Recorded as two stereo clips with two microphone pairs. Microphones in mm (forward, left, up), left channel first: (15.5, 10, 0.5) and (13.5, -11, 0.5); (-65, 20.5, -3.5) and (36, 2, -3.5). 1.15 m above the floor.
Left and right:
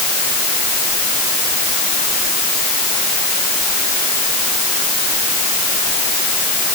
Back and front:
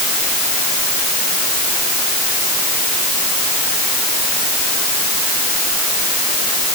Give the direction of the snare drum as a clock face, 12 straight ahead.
I don't hear a snare drum.